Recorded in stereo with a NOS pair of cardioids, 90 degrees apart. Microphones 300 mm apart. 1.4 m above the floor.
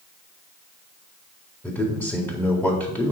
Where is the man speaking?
5° left, 4 m.